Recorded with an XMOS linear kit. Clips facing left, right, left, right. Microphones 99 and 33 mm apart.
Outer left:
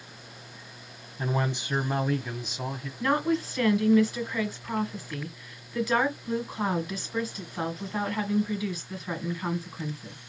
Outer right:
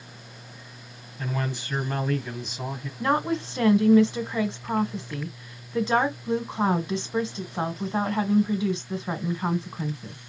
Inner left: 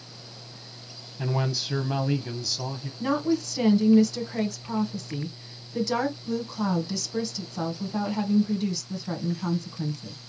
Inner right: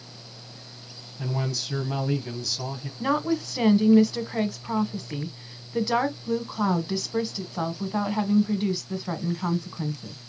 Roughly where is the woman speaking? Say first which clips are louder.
Outer right 1 dB, even; right.